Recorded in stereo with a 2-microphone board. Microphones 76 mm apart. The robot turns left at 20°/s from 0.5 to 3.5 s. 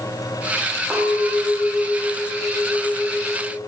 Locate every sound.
0.9 s a clink: 40° right, 0.8 m; by 3.6 s 90° right, 0.8 m